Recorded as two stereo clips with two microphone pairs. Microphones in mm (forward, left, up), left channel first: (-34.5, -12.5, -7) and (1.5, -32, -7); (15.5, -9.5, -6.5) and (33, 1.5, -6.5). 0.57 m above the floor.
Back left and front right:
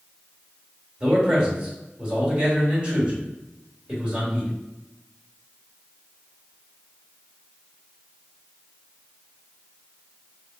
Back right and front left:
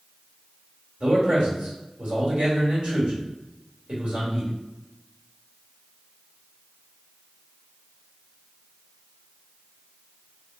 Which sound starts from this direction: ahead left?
A man speaking, at 1.0 s.